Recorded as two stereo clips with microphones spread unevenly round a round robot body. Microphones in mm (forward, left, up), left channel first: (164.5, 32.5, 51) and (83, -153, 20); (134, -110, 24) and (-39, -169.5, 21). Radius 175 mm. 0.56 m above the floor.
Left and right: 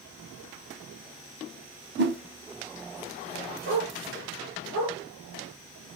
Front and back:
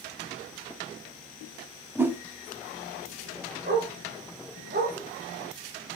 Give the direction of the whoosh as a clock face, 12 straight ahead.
3 o'clock.